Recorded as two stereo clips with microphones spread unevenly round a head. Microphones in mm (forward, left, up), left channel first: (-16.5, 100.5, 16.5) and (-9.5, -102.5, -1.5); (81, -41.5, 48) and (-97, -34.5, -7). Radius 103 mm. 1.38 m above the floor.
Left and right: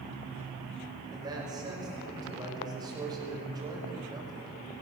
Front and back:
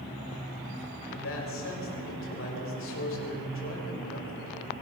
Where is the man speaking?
15° right, 6 m.